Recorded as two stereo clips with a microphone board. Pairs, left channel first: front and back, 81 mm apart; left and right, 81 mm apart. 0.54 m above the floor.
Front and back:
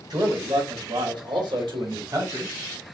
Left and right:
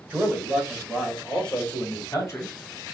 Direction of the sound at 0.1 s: 160° right.